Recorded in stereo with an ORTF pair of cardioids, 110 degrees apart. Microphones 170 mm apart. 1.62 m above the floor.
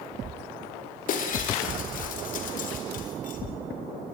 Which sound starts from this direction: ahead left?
Breaking glass, at 1.1 s.